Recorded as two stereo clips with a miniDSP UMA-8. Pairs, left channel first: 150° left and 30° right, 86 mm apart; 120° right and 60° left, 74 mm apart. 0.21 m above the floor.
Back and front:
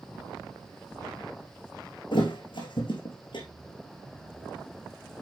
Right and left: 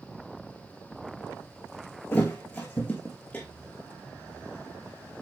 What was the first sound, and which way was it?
A thud, 170° left.